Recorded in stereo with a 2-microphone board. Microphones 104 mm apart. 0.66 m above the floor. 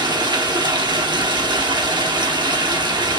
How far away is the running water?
About 1.3 m.